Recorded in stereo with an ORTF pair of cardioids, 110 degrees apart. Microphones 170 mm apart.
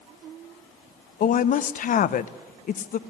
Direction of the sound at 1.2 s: 50° left.